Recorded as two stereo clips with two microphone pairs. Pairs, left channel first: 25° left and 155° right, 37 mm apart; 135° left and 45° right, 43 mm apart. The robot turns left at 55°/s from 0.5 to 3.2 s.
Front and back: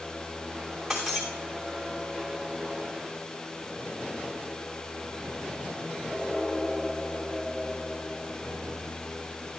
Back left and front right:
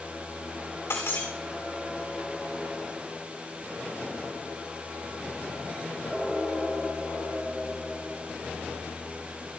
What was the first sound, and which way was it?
Breaking glass, 115° left.